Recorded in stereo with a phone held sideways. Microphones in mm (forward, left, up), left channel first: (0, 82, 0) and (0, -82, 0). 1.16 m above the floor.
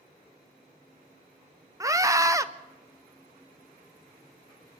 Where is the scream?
20° right (ahead or behind), 0.6 m.